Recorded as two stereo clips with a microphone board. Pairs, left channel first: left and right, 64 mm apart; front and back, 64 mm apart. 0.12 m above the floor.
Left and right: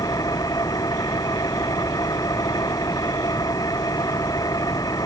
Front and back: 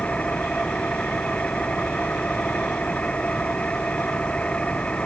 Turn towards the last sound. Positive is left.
turn(degrees=70)